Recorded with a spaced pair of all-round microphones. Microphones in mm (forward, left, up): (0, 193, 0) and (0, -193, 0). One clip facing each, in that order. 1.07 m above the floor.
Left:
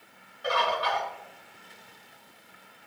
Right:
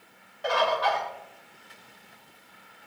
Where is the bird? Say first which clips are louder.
Right 3 dB; 85° right, 4.5 m.